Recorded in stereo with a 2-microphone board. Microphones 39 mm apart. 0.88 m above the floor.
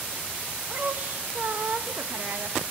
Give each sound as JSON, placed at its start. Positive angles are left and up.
{"t": 0.7, "sound": "a woman speaking", "side_deg": -50, "distance_m": 0.7}